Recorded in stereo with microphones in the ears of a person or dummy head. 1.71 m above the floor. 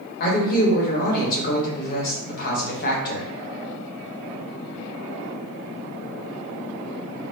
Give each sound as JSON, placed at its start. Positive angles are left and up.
{"t": 0.2, "sound": "a man speaking", "side_deg": 55, "distance_m": 1.1}